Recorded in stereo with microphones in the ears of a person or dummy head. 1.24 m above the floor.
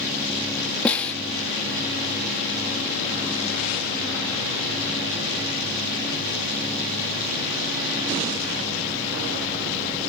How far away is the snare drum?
About 1.3 m.